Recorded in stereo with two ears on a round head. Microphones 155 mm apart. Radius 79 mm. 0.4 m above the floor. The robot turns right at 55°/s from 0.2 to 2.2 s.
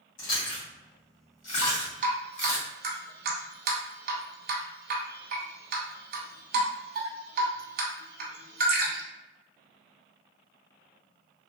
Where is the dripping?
25° right (ahead or behind), 0.8 m; by 9.0 s 55° right (ahead or behind), 0.8 m.